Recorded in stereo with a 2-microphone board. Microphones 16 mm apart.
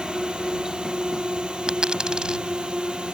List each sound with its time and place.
0.0 s a drone: 75° right (ahead or behind)
1.7 s a dropped coin: 75° right (ahead or behind)